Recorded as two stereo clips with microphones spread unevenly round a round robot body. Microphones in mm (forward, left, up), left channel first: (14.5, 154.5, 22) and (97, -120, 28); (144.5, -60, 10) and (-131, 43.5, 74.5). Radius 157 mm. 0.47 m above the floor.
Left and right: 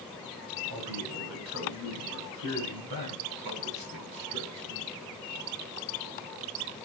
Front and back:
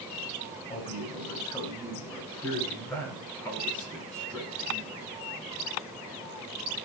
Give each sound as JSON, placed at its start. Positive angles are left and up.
{"t": 0.7, "sound": "a man speaking", "azimuth_deg": -90, "distance_m": 6.5}